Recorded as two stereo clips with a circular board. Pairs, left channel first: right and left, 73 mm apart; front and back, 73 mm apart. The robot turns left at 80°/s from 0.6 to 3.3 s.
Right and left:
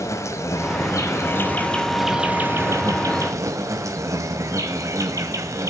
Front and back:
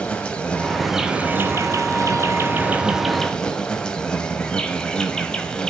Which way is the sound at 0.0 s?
70° right.